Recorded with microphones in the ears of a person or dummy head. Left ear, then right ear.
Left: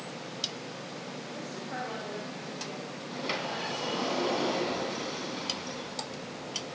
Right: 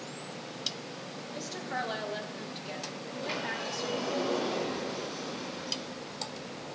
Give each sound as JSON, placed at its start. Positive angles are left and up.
{"t": 1.3, "sound": "a woman speaking", "side_deg": -45, "distance_m": 3.5}
{"t": 3.1, "sound": "a sliding door", "side_deg": 20, "distance_m": 3.5}